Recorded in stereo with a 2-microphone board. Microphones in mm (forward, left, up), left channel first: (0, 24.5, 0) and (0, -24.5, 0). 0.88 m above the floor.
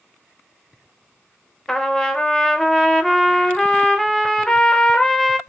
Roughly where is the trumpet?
Centre.